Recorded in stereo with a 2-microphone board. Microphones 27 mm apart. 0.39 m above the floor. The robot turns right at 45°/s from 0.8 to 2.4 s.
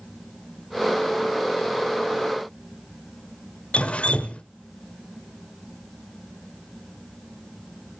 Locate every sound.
3.7 s dripping: 45° left (ahead or behind), 0.8 m